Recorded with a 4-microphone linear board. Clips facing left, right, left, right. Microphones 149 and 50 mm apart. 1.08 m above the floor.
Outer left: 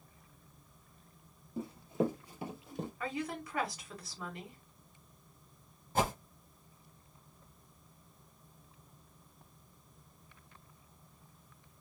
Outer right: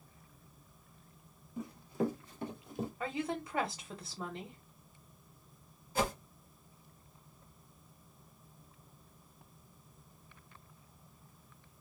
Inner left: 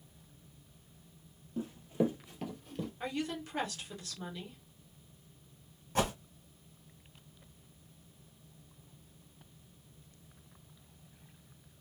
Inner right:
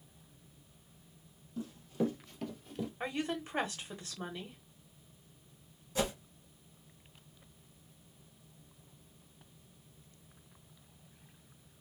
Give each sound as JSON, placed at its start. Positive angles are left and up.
{"t": 1.6, "sound": "running footsteps", "side_deg": 35, "distance_m": 1.2}
{"t": 3.0, "sound": "a woman speaking", "side_deg": -25, "distance_m": 1.1}
{"t": 6.0, "sound": "a whoosh", "side_deg": 50, "distance_m": 1.6}